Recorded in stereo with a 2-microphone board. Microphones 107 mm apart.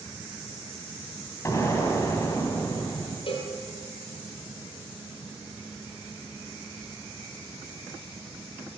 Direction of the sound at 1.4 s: 30° left (ahead or behind).